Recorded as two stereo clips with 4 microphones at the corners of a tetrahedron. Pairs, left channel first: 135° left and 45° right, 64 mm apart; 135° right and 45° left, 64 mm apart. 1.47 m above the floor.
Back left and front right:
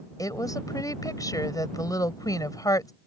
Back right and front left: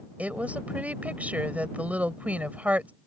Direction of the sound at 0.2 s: 110° left.